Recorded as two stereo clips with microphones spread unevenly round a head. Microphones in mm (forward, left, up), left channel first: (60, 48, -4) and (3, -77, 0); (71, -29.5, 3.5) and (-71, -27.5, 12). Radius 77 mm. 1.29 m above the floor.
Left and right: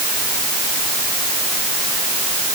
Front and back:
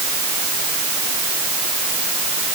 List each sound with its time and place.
Only background noise.